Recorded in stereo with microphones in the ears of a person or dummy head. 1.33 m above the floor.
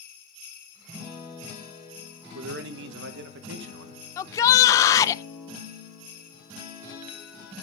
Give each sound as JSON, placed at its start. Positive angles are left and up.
{"t": 2.3, "sound": "a man speaking", "side_deg": -75, "distance_m": 1.1}
{"t": 4.2, "sound": "a shout", "side_deg": 20, "distance_m": 0.6}